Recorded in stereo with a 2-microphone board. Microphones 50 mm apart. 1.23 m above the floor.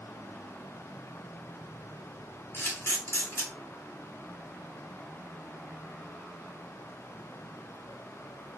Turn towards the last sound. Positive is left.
turn(degrees=55)  # may be behind; listen again after turning